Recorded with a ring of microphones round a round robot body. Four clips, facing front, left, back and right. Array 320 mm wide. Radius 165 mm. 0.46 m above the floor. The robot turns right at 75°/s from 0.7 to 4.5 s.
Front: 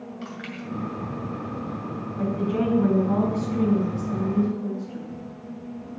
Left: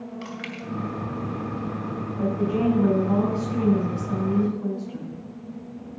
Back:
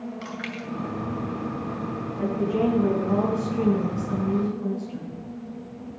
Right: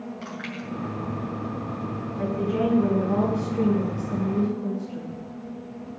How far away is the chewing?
About 2.5 m.